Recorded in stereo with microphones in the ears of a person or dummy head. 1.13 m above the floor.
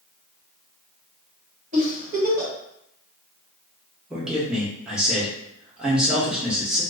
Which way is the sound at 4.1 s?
5° right (ahead or behind).